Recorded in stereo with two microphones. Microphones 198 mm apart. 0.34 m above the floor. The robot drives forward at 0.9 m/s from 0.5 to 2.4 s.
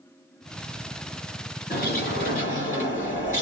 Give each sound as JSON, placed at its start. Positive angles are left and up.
{"t": 1.7, "sound": "a bird", "side_deg": 50, "distance_m": 3.5}